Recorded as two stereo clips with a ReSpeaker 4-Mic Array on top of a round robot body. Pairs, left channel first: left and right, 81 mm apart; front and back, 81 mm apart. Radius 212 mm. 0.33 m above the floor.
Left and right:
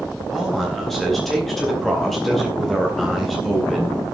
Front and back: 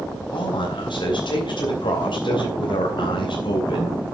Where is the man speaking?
5° left, 4 m.